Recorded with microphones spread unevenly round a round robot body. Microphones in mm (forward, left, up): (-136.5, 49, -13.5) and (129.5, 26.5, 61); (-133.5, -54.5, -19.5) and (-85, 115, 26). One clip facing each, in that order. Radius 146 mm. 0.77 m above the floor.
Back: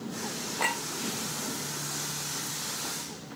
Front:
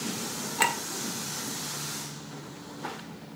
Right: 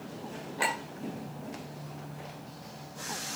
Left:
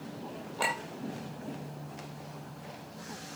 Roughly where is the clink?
Ahead right.